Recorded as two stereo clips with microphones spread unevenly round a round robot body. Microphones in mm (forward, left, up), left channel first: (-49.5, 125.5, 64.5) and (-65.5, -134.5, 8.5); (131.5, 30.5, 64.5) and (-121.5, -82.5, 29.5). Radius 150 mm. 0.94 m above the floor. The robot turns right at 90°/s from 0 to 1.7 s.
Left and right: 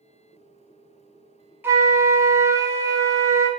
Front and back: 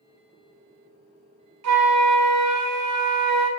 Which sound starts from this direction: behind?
A flute, at 1.6 s.